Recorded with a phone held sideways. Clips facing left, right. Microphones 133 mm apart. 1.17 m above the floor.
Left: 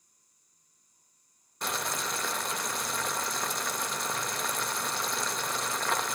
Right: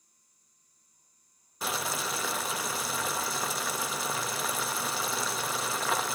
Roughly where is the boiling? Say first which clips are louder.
Right 1 dB; centre.